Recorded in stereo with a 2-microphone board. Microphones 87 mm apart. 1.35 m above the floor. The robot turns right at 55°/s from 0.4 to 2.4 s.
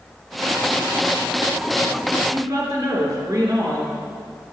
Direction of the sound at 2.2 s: 55° right (ahead or behind).